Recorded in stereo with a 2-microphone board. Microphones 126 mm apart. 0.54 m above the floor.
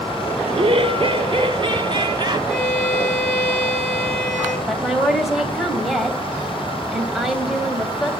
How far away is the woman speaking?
About 2.5 m.